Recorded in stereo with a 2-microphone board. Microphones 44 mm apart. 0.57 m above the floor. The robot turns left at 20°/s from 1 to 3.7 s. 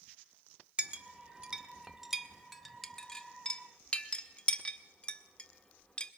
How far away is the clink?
About 0.6 m.